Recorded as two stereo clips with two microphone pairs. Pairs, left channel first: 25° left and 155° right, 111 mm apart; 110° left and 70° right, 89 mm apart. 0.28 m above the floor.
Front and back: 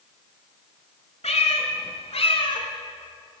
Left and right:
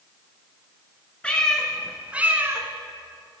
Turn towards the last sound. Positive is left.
turn(degrees=-15)